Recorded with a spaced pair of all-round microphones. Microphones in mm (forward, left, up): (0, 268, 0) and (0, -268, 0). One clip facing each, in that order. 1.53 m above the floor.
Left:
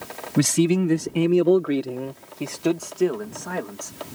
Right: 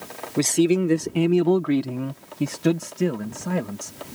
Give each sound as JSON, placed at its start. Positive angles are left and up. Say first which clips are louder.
{"t": 0.4, "sound": "a man speaking", "louder": "even", "side_deg": 40}